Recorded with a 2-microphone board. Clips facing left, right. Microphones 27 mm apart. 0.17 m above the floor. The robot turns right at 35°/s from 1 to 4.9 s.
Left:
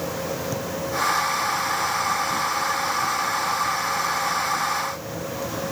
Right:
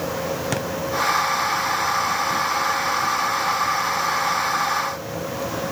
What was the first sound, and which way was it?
A thud, 85° right.